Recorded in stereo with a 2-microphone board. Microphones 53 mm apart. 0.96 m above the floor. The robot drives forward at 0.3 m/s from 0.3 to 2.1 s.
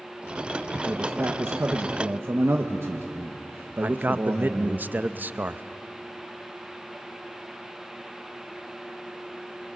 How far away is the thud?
No thud in this recording.